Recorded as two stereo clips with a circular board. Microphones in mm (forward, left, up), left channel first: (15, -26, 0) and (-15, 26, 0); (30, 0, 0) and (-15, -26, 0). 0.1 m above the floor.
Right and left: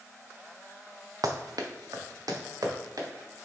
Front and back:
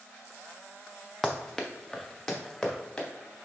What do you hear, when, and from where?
1.2 s running footsteps: 115° left, 0.7 m; by 3.1 s 105° left, 1.9 m